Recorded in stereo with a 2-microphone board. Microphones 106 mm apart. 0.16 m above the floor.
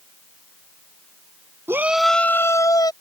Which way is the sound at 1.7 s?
25° right (ahead or behind).